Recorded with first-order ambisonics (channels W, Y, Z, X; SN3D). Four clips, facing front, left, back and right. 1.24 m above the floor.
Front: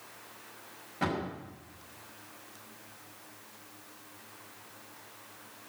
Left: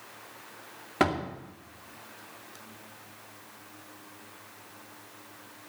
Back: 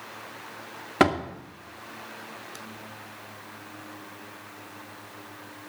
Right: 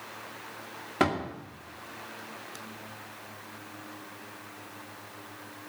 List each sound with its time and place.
1.0 s a door slam: 175° left, 2 m